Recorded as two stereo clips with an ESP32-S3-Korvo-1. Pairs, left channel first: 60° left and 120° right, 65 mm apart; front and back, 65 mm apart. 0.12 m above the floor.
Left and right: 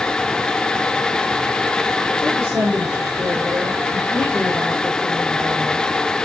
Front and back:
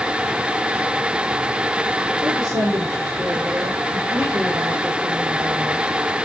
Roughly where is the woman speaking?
Behind.